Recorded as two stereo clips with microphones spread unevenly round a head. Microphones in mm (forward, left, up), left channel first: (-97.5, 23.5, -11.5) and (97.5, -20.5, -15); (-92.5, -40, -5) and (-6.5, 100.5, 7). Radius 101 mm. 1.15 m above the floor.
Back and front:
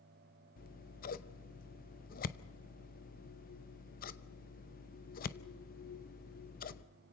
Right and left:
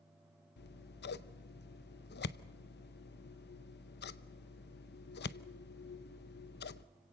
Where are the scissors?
145° right, 0.7 m.